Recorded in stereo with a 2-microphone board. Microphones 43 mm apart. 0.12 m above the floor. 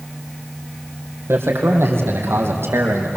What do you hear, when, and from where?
1.3 s a man speaking: 75° right (ahead or behind), 5.5 m